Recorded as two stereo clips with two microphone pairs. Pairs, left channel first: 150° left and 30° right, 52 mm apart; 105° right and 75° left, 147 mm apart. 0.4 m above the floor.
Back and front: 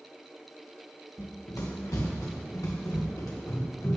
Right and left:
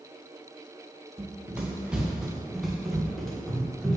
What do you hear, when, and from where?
1.2 s running footsteps: 155° left, 2.5 m; by 4.0 s 170° left, 4 m